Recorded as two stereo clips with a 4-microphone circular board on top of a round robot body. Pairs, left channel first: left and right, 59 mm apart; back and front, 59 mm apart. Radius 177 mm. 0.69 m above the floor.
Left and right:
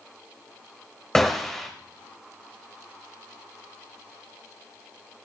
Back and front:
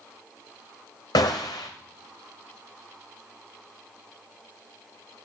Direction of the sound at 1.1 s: 170° left.